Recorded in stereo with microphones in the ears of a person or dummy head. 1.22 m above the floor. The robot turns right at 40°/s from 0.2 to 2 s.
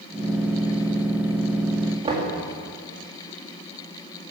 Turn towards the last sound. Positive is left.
turn(degrees=-20)  # may be behind; listen again after turning